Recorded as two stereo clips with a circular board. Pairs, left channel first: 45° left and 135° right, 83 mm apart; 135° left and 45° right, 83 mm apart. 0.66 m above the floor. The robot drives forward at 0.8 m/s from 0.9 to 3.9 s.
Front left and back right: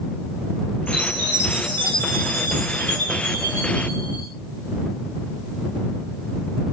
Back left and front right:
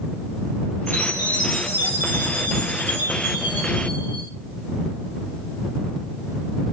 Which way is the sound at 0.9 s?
100° right.